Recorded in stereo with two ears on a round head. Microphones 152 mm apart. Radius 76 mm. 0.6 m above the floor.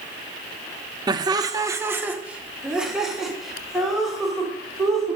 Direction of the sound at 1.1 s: 25° right (ahead or behind).